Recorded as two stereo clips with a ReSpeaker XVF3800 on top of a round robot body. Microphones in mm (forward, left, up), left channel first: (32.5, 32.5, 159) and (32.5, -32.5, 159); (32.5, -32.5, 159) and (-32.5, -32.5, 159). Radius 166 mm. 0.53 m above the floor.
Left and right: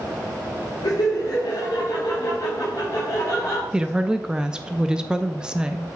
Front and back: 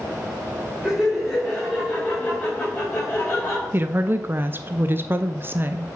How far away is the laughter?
About 2.5 m.